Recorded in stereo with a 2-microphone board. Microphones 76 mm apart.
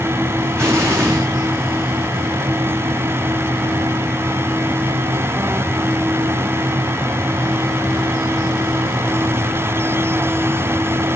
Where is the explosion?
35° right (ahead or behind), 4 m.